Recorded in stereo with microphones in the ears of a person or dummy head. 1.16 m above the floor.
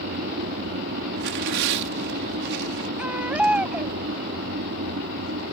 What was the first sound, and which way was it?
An aircraft, 50° right (ahead or behind).